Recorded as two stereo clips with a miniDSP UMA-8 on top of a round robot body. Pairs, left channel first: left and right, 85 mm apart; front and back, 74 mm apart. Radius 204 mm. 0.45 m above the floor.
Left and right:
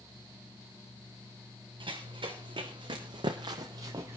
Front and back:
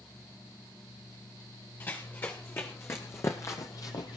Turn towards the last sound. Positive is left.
turn(degrees=-25)